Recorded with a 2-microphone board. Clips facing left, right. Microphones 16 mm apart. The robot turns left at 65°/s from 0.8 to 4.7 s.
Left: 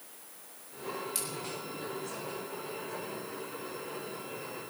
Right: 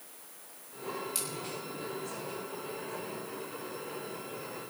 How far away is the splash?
About 5 m.